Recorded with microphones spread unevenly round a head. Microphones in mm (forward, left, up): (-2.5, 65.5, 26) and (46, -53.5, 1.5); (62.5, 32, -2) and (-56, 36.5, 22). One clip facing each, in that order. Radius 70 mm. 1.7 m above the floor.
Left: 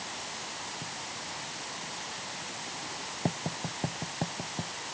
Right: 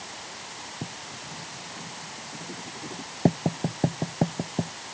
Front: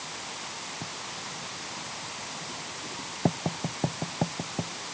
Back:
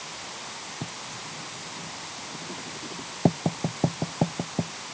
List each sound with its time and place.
0.8 s writing: 115° right